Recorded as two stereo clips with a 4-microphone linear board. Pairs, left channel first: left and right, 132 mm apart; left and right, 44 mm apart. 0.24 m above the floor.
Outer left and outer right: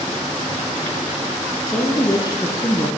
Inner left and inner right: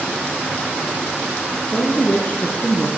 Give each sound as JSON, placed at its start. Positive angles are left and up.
{"t": 1.7, "sound": "a woman speaking", "side_deg": 25, "distance_m": 3.5}